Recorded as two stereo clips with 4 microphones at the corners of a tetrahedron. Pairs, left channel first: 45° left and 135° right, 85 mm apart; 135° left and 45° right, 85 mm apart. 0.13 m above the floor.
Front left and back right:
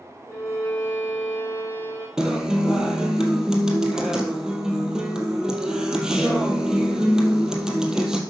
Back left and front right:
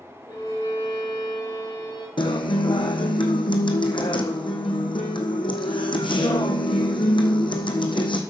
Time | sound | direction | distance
0.3 | a violin | 105° left | 4.5 m
2.2 | a guitar | 145° left | 1.5 m